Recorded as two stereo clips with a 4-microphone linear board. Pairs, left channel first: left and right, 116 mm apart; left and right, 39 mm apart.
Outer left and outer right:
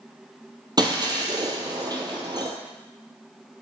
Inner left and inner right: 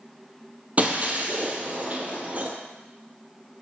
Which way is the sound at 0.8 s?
40° right (ahead or behind).